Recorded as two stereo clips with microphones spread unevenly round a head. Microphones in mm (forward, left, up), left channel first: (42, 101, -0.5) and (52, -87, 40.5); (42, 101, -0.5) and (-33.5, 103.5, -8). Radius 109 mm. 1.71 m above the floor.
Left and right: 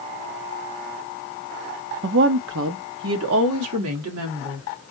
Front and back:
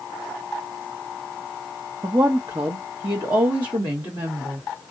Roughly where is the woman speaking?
Behind right.